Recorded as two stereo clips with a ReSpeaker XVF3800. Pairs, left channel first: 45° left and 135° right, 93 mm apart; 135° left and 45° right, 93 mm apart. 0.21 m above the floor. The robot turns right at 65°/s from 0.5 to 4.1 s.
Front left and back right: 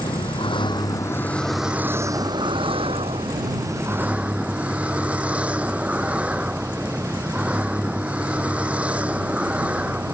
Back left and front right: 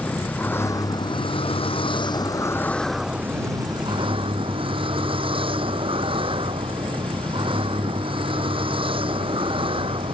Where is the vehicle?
65° left; by 10.2 s 60° right.